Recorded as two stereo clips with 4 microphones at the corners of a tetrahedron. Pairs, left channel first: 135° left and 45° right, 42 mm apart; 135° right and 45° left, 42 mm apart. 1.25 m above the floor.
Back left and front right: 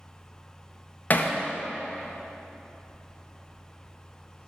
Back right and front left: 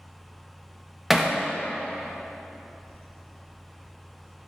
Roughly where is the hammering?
Behind left.